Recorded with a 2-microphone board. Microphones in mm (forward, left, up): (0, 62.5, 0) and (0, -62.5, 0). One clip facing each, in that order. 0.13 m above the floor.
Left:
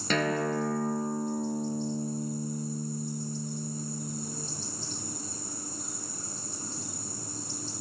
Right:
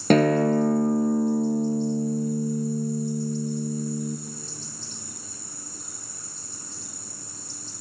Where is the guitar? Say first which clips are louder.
Right 10 dB; 50° right (ahead or behind), 0.7 m.